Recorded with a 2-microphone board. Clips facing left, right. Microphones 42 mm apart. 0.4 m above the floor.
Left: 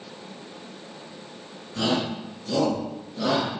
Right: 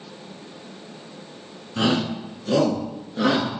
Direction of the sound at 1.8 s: 35° right (ahead or behind).